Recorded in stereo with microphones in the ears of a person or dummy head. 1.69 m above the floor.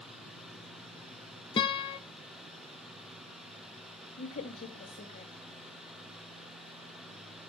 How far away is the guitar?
About 0.6 m.